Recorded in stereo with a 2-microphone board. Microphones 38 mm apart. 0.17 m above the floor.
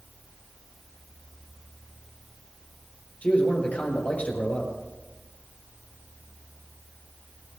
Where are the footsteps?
I don't hear footsteps.